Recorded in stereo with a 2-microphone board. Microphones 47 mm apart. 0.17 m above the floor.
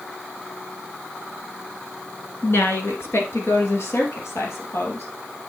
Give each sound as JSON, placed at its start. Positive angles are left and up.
{"t": 2.4, "sound": "a woman speaking", "side_deg": 55, "distance_m": 1.6}